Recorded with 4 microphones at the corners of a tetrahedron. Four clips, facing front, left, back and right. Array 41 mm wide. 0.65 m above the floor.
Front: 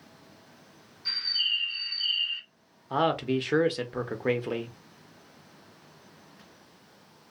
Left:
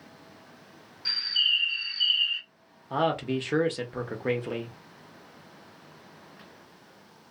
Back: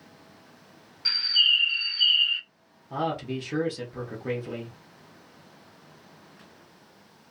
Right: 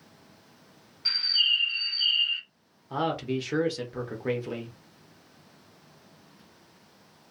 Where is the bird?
165° right, 2.0 m.